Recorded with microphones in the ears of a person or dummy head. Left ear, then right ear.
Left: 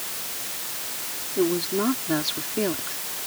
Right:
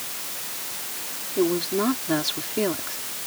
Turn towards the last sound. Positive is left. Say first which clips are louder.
# right 1 dB
turn(degrees=-10)  # may be behind; listen again after turning